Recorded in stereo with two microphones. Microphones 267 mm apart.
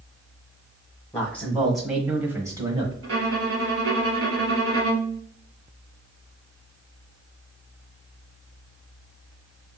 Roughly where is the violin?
Right.